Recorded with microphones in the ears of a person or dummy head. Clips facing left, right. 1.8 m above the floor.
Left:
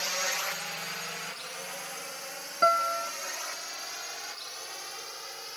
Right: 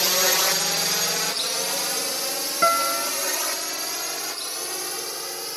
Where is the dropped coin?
I don't hear a dropped coin.